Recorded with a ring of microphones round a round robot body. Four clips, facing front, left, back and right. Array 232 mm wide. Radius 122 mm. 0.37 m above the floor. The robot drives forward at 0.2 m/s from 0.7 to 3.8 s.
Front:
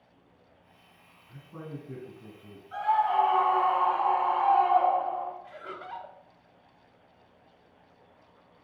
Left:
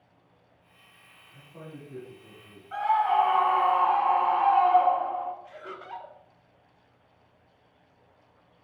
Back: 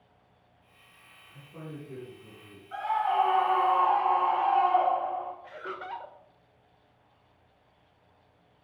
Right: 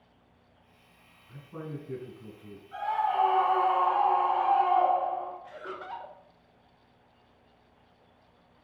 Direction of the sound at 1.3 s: 60° right.